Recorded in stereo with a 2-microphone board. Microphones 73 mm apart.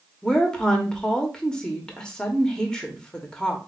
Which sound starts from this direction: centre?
A woman speaking, at 0.2 s.